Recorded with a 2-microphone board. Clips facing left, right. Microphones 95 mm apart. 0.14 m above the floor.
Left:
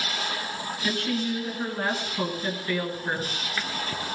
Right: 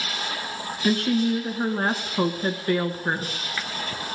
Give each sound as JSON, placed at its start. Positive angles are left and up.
{"t": 0.8, "sound": "a woman speaking", "side_deg": -40, "distance_m": 1.7}